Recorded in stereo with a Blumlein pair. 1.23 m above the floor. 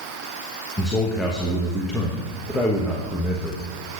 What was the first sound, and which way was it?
A man speaking, 10° left.